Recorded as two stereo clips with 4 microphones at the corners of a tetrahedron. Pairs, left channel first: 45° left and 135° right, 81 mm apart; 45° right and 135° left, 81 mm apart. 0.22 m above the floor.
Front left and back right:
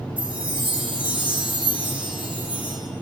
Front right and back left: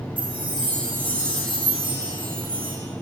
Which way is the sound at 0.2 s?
150° left.